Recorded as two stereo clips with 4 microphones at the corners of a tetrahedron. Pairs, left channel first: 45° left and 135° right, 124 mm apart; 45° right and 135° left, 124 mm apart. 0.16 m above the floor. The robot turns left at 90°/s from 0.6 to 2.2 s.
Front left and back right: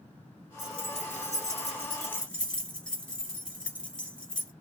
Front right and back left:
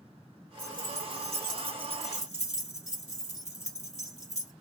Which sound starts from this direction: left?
Keys jangling, at 0.6 s.